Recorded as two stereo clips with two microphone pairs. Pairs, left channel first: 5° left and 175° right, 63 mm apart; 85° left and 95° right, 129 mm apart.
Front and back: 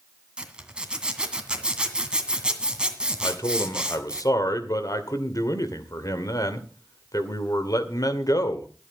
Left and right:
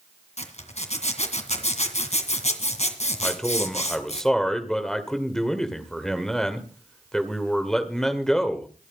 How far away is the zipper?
About 2 m.